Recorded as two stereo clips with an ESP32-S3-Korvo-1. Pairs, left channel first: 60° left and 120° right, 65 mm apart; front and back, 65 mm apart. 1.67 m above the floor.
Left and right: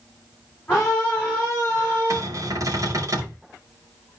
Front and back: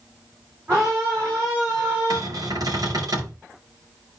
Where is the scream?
130° left, 5 m; by 2.2 s 125° left, 4.5 m.